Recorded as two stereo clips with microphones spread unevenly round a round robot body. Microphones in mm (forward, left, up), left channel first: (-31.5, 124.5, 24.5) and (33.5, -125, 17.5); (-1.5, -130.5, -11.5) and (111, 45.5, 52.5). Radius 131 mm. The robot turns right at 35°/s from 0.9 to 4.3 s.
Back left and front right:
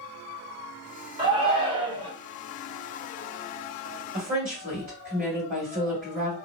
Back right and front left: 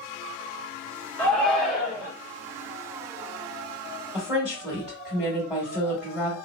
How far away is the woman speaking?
About 1.7 m.